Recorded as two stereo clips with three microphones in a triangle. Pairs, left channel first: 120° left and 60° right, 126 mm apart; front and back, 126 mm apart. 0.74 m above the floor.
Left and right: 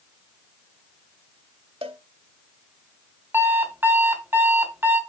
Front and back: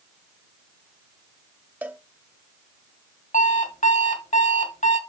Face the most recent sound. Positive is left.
turn(degrees=15)